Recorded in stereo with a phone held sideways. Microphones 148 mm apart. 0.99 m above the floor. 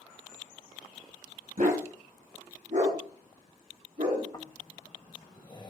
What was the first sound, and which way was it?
A dog barking, 65° right (ahead or behind).